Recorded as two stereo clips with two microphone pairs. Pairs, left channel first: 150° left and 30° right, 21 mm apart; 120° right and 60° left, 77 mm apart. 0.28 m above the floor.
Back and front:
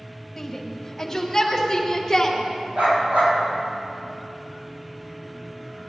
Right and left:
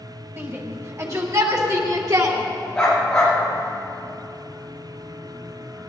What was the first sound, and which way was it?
A shout, 90° left.